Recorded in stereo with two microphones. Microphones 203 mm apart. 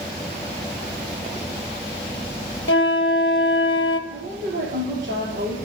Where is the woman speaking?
70° right (ahead or behind), 4 m.